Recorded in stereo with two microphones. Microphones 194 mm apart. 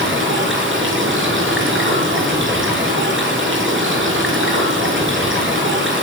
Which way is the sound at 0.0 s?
80° right.